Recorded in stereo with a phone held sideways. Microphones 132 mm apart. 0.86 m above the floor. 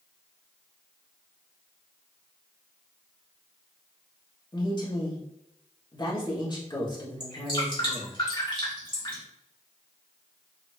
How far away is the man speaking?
About 1.9 m.